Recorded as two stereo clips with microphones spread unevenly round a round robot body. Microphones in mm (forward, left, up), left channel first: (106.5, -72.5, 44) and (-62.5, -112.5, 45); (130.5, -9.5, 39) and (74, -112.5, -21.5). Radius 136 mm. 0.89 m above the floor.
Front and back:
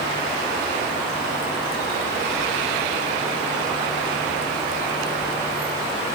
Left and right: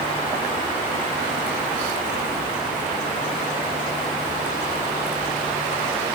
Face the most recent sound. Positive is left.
No sound to turn to.